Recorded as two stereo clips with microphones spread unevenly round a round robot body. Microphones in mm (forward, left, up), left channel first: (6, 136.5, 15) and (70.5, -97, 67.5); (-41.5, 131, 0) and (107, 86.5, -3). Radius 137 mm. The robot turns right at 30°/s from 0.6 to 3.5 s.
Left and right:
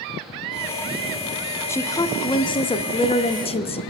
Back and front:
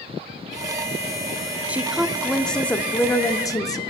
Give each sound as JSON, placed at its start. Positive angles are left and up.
{"t": 1.7, "sound": "a woman speaking", "azimuth_deg": 55, "distance_m": 0.8}